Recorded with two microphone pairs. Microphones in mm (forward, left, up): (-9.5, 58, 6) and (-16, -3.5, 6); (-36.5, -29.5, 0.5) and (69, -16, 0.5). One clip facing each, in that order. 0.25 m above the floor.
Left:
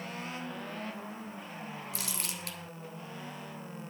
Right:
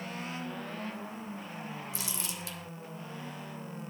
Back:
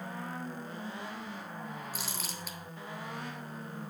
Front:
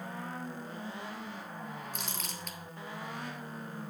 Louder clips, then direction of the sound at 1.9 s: Even, even; 100° left.